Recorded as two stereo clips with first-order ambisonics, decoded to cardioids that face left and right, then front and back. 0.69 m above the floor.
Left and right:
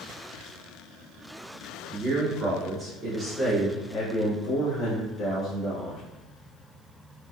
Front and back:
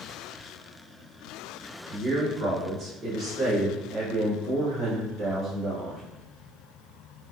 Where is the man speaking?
130° right, 1.5 m; by 6.0 s 120° left, 2.5 m.